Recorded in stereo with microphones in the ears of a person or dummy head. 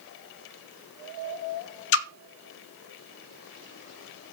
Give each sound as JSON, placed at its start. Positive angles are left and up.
{"t": 1.9, "sound": "a splash", "side_deg": 70, "distance_m": 0.9}